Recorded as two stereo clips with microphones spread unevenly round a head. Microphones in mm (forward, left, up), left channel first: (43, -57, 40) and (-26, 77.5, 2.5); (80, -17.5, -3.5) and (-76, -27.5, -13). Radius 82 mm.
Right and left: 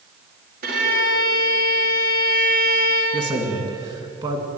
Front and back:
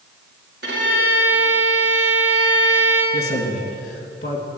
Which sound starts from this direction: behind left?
A violin, at 0.6 s.